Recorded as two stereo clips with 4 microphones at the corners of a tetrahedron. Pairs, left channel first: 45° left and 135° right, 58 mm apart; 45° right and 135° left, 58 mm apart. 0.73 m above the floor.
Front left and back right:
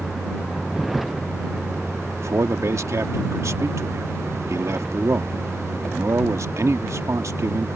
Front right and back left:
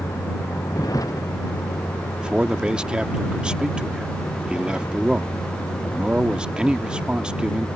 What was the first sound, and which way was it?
A vehicle, 45° right.